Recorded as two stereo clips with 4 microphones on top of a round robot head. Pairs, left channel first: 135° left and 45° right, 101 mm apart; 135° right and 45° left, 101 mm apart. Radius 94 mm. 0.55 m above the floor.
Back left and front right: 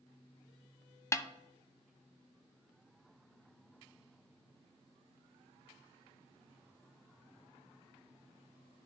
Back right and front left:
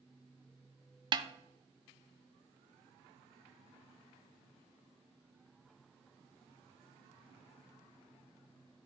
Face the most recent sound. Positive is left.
turn(degrees=75)